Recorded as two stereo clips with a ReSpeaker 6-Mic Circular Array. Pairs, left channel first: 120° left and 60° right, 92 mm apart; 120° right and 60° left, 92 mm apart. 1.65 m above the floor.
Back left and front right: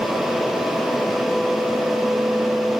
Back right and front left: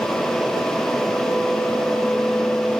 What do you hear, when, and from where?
Only background noise.